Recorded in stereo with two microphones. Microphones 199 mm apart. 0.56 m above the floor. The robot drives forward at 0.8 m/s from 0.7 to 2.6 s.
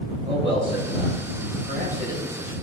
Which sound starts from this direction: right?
A man speaking, at 0.3 s.